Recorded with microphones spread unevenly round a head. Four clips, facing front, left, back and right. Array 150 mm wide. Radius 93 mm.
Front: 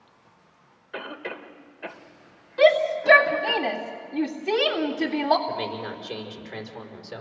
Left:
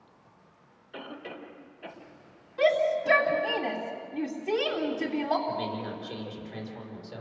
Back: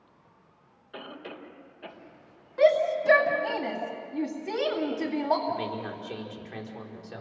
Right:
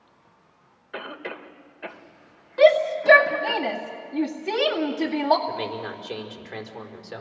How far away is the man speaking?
About 5 m.